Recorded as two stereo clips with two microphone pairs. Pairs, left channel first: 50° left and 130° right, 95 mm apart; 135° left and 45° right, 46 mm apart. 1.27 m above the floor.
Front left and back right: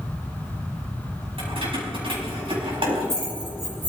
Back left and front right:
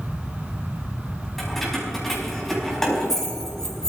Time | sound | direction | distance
1.4 | keys jangling | 140° right | 6 m